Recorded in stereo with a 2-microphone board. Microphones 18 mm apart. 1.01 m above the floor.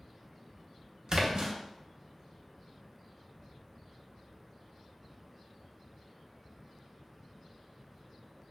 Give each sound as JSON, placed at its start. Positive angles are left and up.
{"t": 1.1, "sound": "a splash", "side_deg": -50, "distance_m": 0.6}